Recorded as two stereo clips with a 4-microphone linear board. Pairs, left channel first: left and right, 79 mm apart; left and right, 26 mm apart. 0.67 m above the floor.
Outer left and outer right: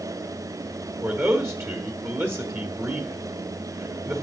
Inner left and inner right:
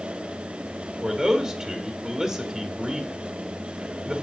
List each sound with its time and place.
1.0 s a man speaking: 30° right (ahead or behind), 1.4 m